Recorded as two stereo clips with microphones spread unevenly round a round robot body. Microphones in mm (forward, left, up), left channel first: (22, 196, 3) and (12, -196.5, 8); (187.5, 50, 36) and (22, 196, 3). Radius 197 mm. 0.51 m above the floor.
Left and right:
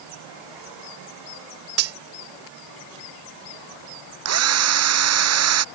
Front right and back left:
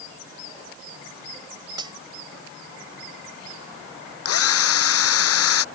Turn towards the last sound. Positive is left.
turn(degrees=-40)